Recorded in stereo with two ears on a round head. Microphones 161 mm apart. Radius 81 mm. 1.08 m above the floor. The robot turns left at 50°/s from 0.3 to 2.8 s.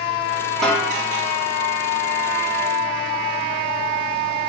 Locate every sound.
0.6 s a snare drum: 5° left (ahead or behind), 1.0 m; by 0.9 s 15° left (ahead or behind), 1.0 m